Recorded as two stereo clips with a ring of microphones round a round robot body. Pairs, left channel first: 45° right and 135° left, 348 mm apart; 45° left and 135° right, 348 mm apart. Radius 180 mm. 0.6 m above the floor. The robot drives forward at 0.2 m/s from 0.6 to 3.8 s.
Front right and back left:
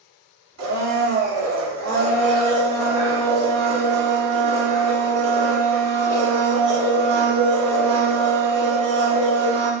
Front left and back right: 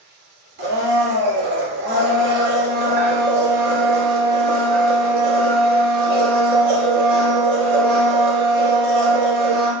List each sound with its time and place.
0.6 s a blender: 170° left, 1.7 m; by 9.7 s 175° left, 2.5 m